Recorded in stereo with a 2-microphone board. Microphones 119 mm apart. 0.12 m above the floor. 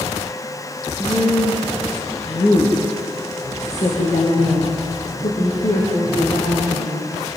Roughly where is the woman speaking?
Centre.